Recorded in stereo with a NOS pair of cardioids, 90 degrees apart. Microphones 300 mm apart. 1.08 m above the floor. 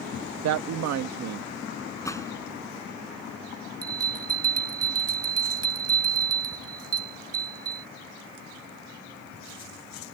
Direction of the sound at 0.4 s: 60° right.